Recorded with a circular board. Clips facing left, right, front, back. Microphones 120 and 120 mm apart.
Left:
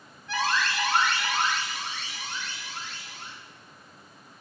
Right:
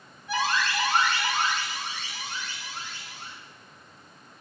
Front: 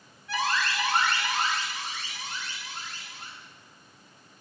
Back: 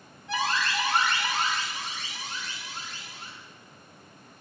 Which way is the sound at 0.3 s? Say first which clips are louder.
Right 1 dB, even; 150° right.